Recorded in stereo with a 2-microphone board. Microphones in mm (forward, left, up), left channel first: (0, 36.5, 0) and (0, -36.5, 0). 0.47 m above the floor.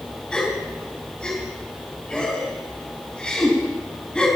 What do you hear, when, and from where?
0.3 s a gasp: 15° left (ahead or behind), 4 m